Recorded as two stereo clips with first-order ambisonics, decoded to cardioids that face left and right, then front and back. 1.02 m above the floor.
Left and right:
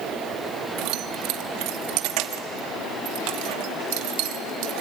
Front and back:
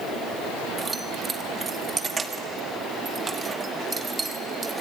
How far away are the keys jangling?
About 1.3 m.